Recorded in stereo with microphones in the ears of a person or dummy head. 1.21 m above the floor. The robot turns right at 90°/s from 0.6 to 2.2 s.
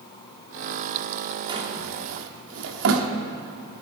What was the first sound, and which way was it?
A drawer, 25° right (ahead or behind).